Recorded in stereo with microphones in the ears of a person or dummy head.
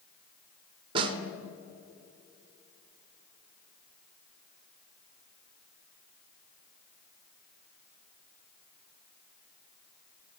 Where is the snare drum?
30° right (ahead or behind), 0.8 m.